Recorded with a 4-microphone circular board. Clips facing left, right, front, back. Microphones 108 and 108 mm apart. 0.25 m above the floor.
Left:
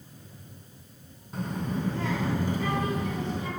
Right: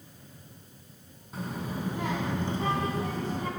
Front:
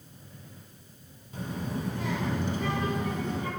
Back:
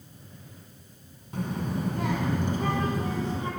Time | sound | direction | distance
1.3 | a child speaking | straight behind | 1.6 m